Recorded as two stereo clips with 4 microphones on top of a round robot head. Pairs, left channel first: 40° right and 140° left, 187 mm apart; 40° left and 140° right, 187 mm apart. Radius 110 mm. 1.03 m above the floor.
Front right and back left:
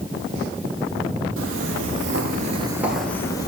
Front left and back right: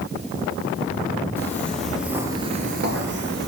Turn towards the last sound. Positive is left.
turn(degrees=-105)